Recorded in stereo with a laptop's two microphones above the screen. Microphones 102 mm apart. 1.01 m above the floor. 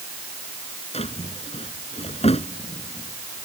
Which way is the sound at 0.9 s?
85° left.